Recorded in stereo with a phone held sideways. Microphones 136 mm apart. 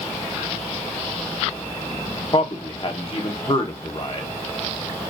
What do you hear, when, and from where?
2.3 s a man speaking: 45° left (ahead or behind), 1.0 m